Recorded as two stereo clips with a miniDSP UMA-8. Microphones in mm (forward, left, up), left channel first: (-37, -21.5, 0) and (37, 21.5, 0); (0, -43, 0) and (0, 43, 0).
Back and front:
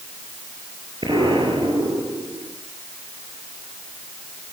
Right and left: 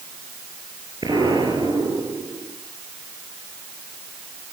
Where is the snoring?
No snoring in this recording.